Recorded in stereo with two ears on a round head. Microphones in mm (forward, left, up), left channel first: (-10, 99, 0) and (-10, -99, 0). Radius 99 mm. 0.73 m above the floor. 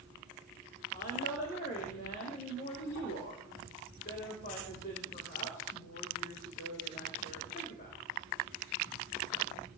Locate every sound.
0.9 s a woman speaking: 45° left (ahead or behind), 3.5 m